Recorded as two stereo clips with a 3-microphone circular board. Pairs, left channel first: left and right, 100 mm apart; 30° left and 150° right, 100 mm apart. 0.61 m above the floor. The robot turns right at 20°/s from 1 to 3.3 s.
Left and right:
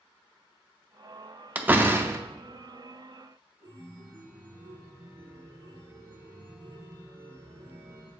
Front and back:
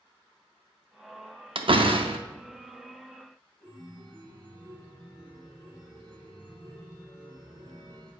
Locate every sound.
1.6 s a door slam: 165° right, 0.5 m; by 2.2 s 150° right, 0.5 m
3.6 s a chime: 50° right, 3.5 m